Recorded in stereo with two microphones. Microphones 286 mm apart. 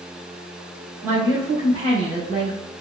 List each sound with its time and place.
1.0 s a woman speaking: 10° right (ahead or behind), 1.5 m; by 2.6 s 35° right (ahead or behind), 1.6 m